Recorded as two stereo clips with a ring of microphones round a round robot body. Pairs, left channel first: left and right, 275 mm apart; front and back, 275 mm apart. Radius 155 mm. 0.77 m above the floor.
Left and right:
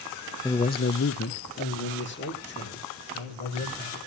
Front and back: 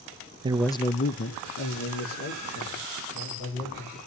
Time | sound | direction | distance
0.4 | a man speaking | 150° left | 0.6 m